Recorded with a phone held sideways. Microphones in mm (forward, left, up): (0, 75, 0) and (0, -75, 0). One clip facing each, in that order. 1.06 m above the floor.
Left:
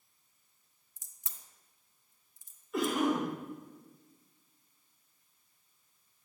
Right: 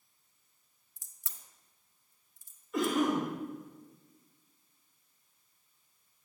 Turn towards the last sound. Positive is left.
turn(degrees=0)  # may be behind; listen again after turning